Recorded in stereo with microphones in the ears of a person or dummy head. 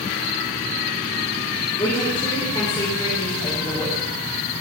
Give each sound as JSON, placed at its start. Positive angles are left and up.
{"t": 1.8, "sound": "a woman speaking", "side_deg": 25, "distance_m": 2.5}